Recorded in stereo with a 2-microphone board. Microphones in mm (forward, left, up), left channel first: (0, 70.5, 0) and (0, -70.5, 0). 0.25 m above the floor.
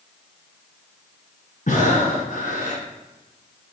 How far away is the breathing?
About 1.8 m.